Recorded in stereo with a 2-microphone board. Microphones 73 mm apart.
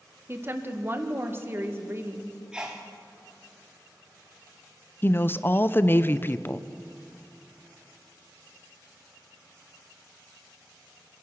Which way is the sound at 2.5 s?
10° right (ahead or behind).